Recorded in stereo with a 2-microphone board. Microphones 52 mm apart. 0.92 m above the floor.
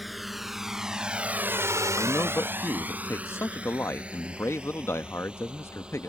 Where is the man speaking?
55° left (ahead or behind).